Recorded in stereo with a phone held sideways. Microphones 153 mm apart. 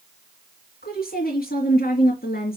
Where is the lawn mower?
No lawn mower in this recording.